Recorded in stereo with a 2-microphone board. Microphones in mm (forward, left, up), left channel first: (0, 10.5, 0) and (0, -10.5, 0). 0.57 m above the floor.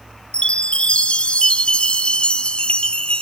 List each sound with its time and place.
0.3 s a chime: 55° left (ahead or behind), 0.6 m